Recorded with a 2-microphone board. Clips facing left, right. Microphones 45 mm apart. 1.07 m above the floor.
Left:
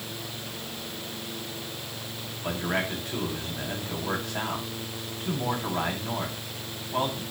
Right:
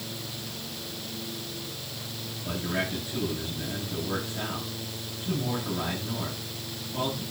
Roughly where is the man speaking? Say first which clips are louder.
Left 2 dB; left.